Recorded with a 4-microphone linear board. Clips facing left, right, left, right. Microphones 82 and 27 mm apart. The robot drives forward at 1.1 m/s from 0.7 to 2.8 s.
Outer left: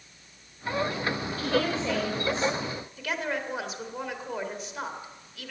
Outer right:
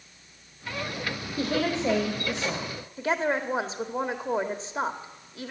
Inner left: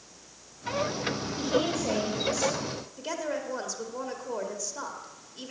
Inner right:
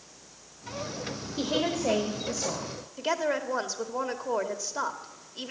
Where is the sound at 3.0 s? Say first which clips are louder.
Outer right 6 dB, inner right 6 dB; 30° right (ahead or behind), 1.5 m.